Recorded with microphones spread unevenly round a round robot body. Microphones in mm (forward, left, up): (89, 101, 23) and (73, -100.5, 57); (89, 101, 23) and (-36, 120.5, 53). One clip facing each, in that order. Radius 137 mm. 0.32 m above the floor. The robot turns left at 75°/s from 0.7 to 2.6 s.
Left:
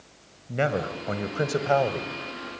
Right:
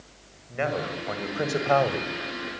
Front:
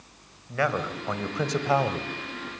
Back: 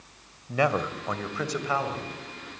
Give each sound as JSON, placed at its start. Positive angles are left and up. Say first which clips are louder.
{"t": 0.5, "sound": "a man speaking", "louder": "left 2 dB, back 2 dB", "azimuth_deg": 95, "distance_m": 2.0}